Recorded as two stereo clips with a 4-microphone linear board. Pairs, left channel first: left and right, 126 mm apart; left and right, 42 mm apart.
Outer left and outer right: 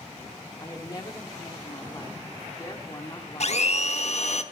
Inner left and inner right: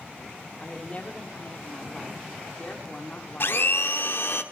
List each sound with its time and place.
0.6 s a woman speaking: 30° left (ahead or behind), 1.2 m
3.4 s a blender: 60° left (ahead or behind), 0.9 m